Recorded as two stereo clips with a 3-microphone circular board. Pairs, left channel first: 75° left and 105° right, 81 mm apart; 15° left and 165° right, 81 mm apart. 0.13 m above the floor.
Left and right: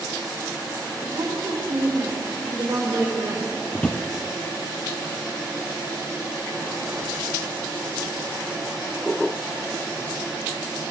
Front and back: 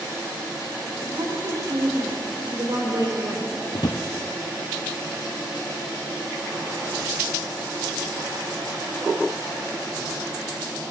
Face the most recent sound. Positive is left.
turn(degrees=0)